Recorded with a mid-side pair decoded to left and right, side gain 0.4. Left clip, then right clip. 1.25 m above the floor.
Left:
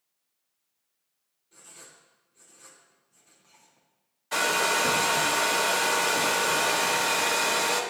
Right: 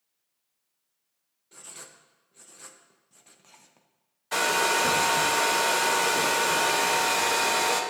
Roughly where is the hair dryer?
Ahead.